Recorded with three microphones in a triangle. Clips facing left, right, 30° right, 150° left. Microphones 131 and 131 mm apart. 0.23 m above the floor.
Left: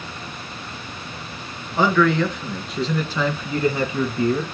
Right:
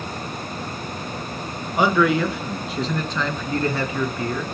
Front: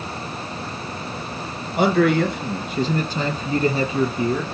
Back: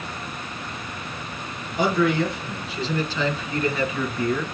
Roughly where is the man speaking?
Ahead.